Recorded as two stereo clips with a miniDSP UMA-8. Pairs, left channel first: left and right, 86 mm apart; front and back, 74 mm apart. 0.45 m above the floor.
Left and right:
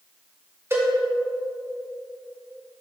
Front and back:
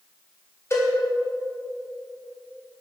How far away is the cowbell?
About 2.0 m.